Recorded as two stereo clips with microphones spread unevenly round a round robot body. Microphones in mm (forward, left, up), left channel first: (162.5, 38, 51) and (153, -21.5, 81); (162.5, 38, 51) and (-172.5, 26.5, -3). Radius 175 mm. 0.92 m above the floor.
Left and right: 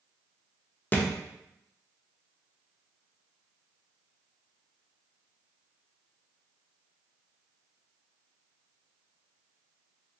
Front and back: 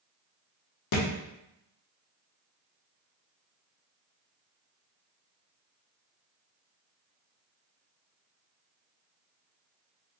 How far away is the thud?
About 0.8 m.